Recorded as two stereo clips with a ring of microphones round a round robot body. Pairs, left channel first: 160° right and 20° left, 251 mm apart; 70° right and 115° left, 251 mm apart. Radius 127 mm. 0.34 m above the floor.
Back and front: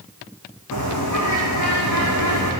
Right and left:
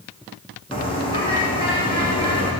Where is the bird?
140° right, 7.5 m.